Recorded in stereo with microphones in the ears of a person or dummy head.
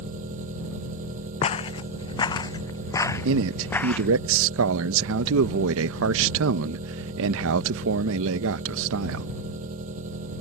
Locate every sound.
0.0 s an engine running: 45° right (ahead or behind)
1.4 s footsteps: 30° left (ahead or behind); by 4.1 s 5° left (ahead or behind)
3.2 s a man speaking: 75° right (ahead or behind)